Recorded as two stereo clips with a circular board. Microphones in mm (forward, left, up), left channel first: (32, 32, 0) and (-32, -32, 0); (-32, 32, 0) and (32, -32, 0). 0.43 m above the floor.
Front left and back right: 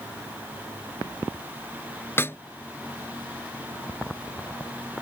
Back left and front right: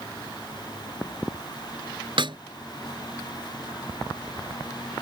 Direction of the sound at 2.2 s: 20° right.